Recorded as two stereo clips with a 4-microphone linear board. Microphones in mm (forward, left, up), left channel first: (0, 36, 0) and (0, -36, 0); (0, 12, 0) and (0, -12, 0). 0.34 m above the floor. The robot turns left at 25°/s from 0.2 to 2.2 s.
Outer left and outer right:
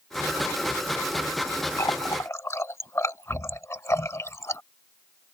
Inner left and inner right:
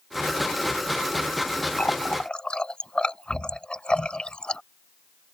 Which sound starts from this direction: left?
A running tap, at 1.8 s.